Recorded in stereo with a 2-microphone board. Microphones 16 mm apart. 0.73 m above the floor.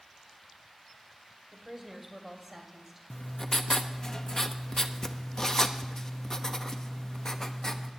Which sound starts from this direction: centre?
A woman speaking, at 1.5 s.